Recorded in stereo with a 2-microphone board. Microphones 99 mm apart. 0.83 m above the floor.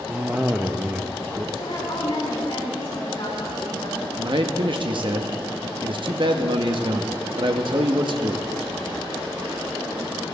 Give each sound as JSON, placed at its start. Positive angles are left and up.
{"t": 0.1, "sound": "a cough", "side_deg": -15, "distance_m": 0.6}
{"t": 1.6, "sound": "a woman speaking", "side_deg": 65, "distance_m": 6.5}
{"t": 4.2, "sound": "a man speaking", "side_deg": -55, "distance_m": 1.1}